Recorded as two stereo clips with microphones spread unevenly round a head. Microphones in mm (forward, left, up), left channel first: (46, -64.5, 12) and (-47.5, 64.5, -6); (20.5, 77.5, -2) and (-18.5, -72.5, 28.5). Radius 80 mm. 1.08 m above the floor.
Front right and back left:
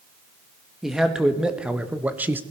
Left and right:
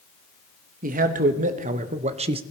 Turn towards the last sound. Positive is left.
turn(degrees=-165)